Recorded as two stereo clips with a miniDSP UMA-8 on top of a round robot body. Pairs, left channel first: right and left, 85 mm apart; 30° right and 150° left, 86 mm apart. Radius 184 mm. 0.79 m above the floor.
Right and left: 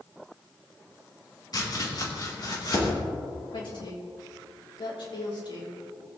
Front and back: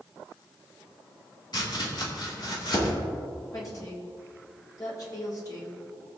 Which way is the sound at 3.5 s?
75° right.